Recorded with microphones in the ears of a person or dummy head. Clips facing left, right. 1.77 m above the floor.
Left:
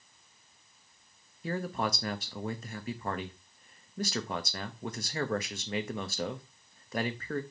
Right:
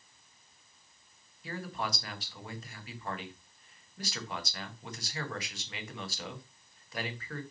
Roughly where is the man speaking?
Left.